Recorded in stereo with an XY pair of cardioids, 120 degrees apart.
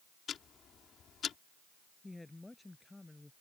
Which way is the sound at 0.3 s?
50° left.